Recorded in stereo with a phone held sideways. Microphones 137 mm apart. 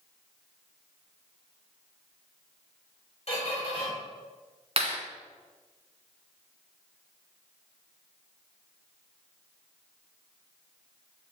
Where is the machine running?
No machine running in this recording.